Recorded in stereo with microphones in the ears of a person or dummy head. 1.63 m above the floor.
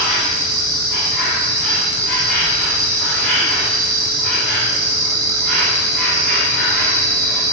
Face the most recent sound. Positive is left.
turn(degrees=5)  # may be behind; listen again after turning